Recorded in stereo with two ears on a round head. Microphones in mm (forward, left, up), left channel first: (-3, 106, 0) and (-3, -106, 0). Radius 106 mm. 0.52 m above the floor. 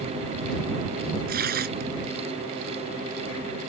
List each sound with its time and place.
1.3 s tearing paper: 40° right (ahead or behind)